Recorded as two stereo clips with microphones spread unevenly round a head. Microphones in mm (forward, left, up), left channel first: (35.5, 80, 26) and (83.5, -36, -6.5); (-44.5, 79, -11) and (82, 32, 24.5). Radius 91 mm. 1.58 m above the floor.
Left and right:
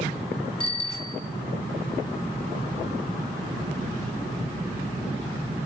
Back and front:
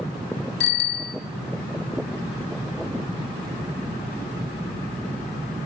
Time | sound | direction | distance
0.6 | a bicycle bell | 170° left | 2 m